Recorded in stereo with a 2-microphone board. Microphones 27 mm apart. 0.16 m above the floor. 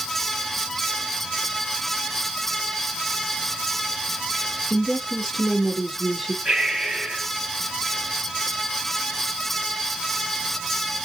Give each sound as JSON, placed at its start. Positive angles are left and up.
{"t": 4.7, "sound": "a woman speaking", "side_deg": -10, "distance_m": 2.5}
{"t": 6.5, "sound": "breathing", "side_deg": -30, "distance_m": 2.5}